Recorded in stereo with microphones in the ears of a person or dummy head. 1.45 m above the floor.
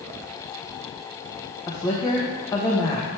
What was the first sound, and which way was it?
A woman speaking, 20° left (ahead or behind).